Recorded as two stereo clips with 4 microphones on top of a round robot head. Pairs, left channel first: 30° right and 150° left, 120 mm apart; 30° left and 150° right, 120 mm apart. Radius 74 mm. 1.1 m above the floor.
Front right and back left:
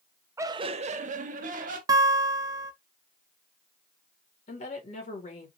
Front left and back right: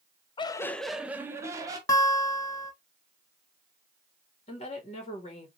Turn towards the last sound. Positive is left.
turn(degrees=-5)